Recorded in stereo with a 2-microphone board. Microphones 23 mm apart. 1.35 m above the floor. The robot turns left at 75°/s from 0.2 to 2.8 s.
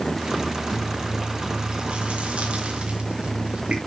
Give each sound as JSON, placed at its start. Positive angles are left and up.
{"t": 0.7, "sound": "chewing", "azimuth_deg": 30, "distance_m": 2.5}